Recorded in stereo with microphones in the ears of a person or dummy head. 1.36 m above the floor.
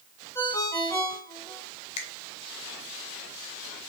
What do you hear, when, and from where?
0.3 s a ringtone: 15° left (ahead or behind), 1.8 m
2.0 s a finger snap: 35° left (ahead or behind), 1.5 m